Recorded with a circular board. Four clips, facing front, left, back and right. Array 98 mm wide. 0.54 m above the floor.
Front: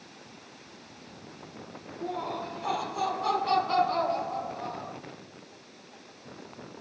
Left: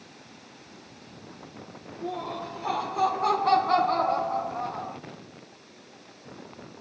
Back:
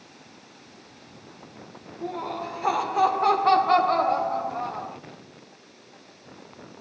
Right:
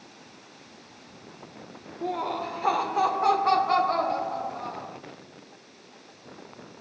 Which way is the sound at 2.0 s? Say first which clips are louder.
Right 4 dB, back 2 dB; 100° right.